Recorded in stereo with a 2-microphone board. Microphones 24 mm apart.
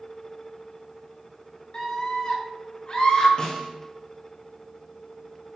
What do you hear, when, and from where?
1.7 s a scream: 35° left (ahead or behind), 3.5 m; by 3.3 s 45° left (ahead or behind), 4 m
3.4 s a snare drum: 35° left (ahead or behind), 3 m